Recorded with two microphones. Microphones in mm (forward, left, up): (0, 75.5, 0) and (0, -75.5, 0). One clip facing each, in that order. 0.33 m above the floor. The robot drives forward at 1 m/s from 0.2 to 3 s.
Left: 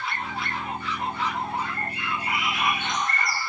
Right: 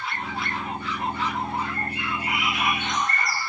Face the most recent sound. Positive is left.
turn(degrees=0)  # may be behind; listen again after turning